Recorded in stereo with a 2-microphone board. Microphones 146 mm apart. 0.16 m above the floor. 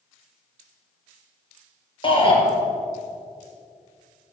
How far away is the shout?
About 3.5 m.